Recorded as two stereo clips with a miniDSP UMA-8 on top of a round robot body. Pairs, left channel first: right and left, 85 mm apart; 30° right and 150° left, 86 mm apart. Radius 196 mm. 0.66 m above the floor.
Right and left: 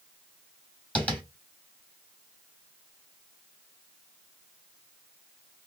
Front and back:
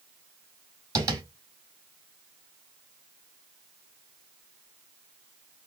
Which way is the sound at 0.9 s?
160° right.